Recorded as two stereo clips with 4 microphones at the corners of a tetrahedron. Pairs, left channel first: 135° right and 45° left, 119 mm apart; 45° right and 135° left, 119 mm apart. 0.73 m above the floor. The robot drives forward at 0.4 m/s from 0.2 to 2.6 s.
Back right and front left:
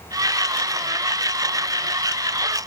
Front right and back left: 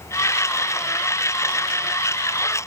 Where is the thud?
No thud in this recording.